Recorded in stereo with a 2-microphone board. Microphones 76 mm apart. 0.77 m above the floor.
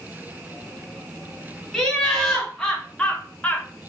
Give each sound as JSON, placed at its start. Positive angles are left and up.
{"t": 1.7, "sound": "laughter", "side_deg": 5, "distance_m": 1.8}